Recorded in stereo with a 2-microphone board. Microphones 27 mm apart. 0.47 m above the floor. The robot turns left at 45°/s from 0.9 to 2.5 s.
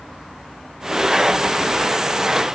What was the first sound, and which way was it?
Only background noise.